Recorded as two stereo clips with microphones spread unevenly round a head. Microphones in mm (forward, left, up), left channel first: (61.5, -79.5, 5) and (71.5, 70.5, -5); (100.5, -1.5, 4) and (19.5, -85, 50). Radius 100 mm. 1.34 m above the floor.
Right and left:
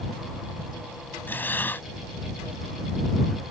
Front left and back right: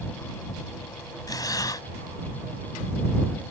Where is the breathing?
15° right.